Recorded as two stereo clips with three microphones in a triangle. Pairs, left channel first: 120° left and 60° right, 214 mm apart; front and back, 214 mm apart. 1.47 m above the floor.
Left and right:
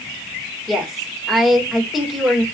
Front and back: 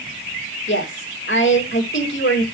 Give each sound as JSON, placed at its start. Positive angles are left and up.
{"t": 0.7, "sound": "a woman speaking", "azimuth_deg": 30, "distance_m": 2.5}